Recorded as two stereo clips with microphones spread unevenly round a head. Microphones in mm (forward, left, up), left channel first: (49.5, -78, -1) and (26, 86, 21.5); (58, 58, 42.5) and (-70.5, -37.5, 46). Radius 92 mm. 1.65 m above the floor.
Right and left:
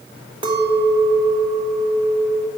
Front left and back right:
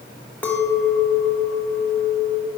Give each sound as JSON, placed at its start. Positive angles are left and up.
{"t": 0.4, "sound": "a clink", "azimuth_deg": 115, "distance_m": 1.0}